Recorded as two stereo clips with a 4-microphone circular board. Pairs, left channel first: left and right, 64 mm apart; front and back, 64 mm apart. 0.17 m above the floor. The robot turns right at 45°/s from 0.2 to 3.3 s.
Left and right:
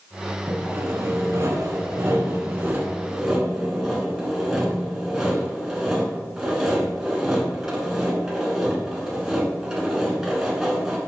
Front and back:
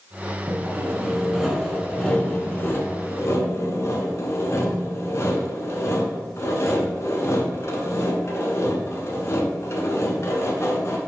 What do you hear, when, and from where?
0.5 s sawing: 140° right, 0.8 m; by 11.0 s 10° right, 0.8 m